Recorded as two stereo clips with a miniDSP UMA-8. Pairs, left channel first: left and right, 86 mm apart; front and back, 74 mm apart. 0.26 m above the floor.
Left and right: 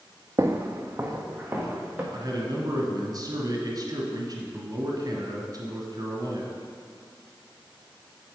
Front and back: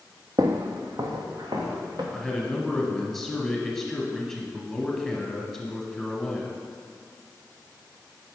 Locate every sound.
0.4 s footsteps: 145° right, 0.6 m; by 2.0 s 165° right, 2 m
2.1 s a man speaking: 85° right, 1.5 m